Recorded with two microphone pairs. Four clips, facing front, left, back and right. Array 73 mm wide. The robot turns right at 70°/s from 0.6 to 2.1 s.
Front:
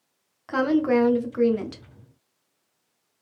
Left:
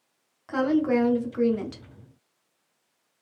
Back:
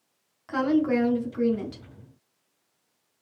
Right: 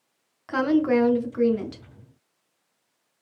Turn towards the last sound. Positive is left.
turn(degrees=40)